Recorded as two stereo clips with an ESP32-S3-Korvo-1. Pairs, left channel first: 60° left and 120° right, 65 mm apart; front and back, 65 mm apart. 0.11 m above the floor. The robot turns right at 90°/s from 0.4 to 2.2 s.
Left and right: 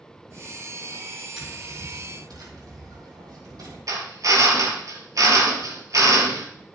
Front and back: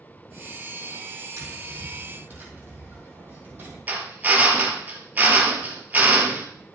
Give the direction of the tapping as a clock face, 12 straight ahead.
7 o'clock.